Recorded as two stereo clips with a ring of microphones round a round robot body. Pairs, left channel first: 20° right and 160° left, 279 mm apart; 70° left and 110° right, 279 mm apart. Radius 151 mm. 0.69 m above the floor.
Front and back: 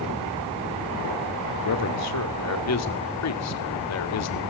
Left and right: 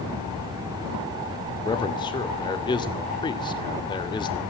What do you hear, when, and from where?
1.6 s a man speaking: 5° right, 1.8 m